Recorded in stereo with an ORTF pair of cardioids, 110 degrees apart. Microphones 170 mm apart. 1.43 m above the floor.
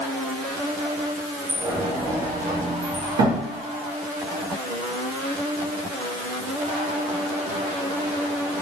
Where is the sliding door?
70° right, 1.1 m.